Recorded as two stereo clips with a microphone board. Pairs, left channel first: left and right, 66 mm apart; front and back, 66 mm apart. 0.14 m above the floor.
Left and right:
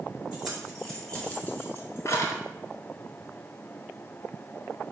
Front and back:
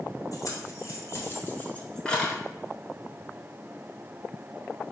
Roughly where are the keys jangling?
Ahead.